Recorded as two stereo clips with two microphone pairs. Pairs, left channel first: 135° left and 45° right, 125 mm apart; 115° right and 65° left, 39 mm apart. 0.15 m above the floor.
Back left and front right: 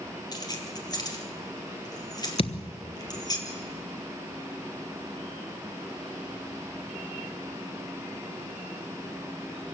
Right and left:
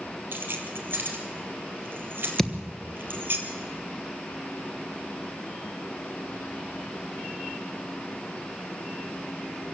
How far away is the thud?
About 1.2 m.